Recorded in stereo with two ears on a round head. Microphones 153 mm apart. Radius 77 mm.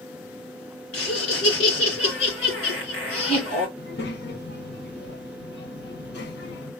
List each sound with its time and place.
0.9 s laughter: 70° left (ahead or behind), 2.5 m
3.8 s a child speaking: 70° left (ahead or behind), 1.1 m